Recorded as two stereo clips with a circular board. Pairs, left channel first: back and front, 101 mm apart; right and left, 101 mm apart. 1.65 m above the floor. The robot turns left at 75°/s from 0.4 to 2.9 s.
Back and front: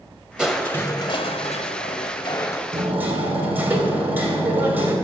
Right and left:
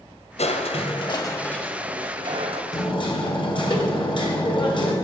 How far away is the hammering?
About 2 m.